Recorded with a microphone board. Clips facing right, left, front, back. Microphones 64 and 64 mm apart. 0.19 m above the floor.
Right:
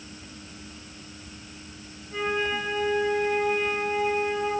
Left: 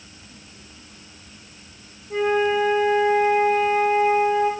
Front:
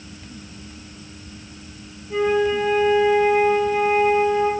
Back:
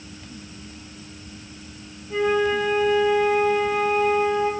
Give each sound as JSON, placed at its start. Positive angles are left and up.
{"t": 2.1, "sound": "a flute", "azimuth_deg": 80, "distance_m": 2.5}